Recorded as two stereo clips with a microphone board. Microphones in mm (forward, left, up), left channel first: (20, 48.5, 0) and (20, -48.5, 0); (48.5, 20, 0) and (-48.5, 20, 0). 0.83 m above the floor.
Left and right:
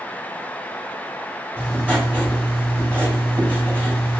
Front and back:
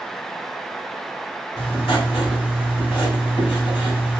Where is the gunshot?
No gunshot in this recording.